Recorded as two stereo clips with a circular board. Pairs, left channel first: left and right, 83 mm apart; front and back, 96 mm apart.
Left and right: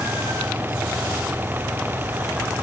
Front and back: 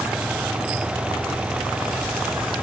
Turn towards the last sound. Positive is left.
No sound to turn to.